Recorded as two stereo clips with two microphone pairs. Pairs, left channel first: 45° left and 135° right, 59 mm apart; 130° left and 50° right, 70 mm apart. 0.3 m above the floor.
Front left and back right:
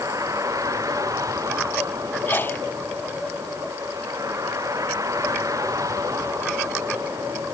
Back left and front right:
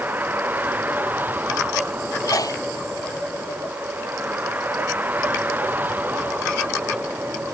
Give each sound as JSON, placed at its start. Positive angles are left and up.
{"t": 0.0, "sound": "a vehicle", "azimuth_deg": -115}
{"t": 2.3, "sound": "a sneeze", "azimuth_deg": 100}